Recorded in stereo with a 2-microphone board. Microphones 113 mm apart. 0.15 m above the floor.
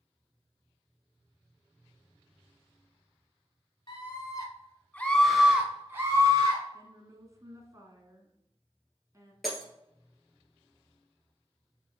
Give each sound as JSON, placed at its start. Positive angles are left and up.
{"t": 3.9, "sound": "a scream", "side_deg": 45, "distance_m": 1.4}
{"t": 6.7, "sound": "a woman speaking", "side_deg": -30, "distance_m": 1.2}
{"t": 9.4, "sound": "breaking glass", "side_deg": 0, "distance_m": 1.6}